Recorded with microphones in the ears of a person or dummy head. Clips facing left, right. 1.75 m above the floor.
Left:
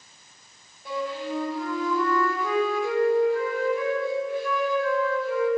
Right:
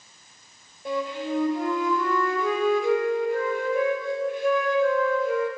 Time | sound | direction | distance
0.8 | a flute | 55° right (ahead or behind) | 5.5 m